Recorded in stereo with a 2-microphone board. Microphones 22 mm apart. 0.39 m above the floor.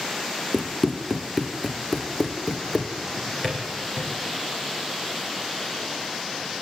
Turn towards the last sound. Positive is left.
turn(degrees=25)  # may be behind; listen again after turning